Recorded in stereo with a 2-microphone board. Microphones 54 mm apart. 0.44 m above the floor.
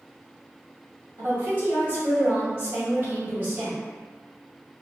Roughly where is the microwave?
No microwave in this recording.